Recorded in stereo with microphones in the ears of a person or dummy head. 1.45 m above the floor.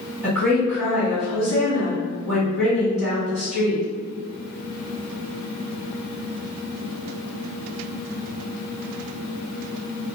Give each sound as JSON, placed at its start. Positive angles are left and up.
{"t": 0.2, "sound": "a woman speaking", "side_deg": -5, "distance_m": 1.6}